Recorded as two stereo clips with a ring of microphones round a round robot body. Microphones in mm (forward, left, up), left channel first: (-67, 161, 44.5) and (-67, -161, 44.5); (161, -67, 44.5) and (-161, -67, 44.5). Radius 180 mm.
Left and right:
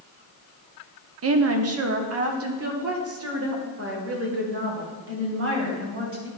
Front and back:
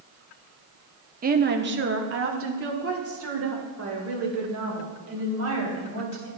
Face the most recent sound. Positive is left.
turn(degrees=-140)